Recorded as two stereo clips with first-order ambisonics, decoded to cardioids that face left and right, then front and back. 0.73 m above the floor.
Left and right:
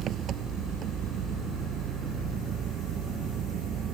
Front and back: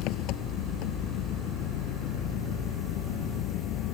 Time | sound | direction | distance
0.0 | an engine running | 35° right | ?